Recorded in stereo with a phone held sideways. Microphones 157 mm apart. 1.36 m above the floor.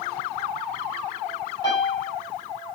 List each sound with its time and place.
1.6 s a piano: 30° left (ahead or behind), 4.5 m